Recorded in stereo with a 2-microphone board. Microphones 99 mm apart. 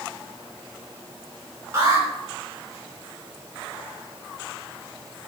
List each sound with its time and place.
1.7 s an alarm: 25° right (ahead or behind), 3 m